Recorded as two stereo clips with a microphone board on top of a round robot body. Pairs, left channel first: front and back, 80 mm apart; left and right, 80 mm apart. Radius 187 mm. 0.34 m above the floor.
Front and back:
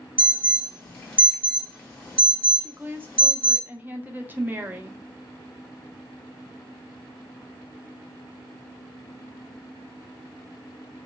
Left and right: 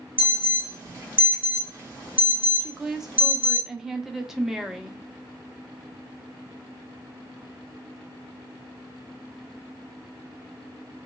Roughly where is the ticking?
No ticking in this recording.